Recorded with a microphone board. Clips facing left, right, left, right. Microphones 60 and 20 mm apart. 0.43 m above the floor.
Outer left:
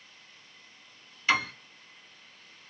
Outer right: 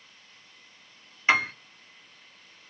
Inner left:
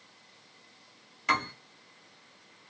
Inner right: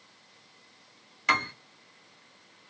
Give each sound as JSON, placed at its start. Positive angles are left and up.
{"t": 1.3, "sound": "a piano", "side_deg": -30, "distance_m": 1.1}